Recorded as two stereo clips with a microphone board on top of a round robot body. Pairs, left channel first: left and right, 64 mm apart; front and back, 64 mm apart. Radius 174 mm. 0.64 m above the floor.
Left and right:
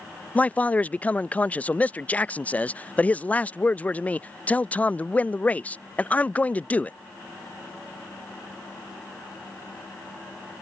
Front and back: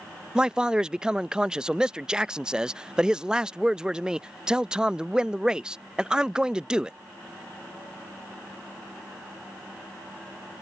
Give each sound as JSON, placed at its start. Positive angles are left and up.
{"t": 0.3, "sound": "a man speaking", "azimuth_deg": 120}